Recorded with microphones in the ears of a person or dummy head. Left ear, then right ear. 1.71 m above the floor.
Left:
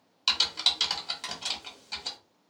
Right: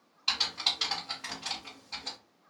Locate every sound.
0.3 s typing on a keyboard: 85° left, 1.3 m